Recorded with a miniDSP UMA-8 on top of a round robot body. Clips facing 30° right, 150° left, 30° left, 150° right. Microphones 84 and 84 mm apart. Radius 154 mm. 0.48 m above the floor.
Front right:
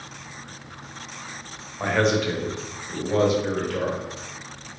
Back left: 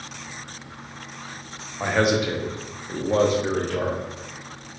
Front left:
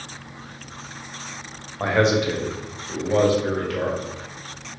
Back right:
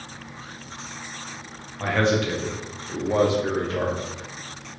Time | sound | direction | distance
1.8 | a man speaking | 65° left | 1.1 m